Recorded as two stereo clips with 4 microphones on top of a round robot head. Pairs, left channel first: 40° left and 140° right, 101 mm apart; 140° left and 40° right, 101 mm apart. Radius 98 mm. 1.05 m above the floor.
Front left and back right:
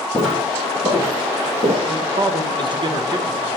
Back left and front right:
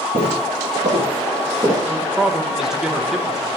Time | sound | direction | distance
0.1 | footsteps | 55° right | 1.5 m
1.9 | a man speaking | 125° right | 1.2 m